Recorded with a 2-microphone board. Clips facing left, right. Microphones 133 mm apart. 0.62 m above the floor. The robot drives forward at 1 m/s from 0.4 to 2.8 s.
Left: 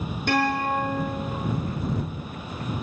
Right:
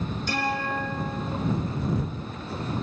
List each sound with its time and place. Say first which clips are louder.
0.3 s a guitar: left 6 dB; 60° left (ahead or behind), 6 m; by 1.3 s 70° left (ahead or behind), 5.5 m